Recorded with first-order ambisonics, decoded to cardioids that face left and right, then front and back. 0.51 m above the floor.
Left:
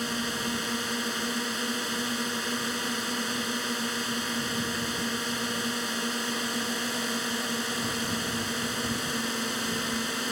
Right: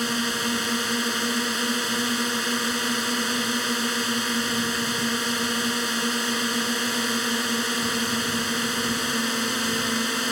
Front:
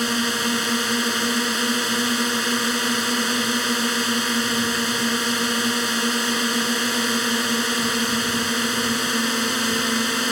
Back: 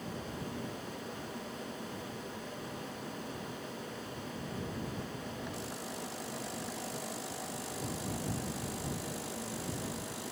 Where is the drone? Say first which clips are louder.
Right 5 dB, front 21 dB; 15° right.